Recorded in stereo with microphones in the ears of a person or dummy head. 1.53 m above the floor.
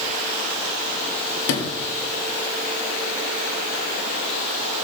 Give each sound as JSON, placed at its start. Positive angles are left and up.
{"t": 1.5, "sound": "a sliding door", "side_deg": 70, "distance_m": 1.8}